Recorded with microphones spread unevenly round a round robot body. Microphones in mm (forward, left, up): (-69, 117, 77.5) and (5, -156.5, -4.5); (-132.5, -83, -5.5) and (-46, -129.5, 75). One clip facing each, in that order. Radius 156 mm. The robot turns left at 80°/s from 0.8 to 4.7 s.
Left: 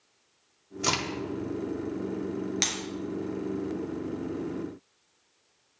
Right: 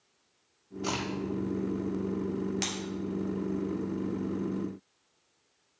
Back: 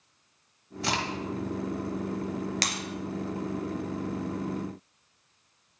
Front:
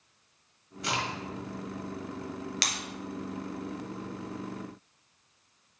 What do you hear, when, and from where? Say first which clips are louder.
0.8 s a crack: left 1 dB, back 2 dB; 125° left, 1.7 m; by 1.2 s 100° left, 1.7 m
2.6 s breaking glass: even, back 3 dB; straight behind, 2 m; by 2.8 s 165° left, 2 m